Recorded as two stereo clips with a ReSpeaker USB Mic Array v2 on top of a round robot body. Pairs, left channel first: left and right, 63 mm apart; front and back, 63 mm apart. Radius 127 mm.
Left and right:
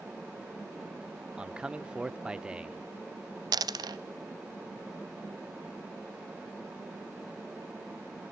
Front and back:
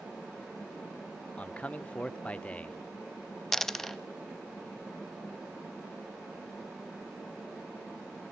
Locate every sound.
1.4 s a man speaking: 35° right, 0.9 m
3.5 s a dropped coin: 85° right, 0.6 m